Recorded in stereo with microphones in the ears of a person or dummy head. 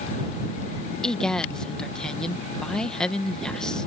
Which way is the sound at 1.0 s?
5° left (ahead or behind).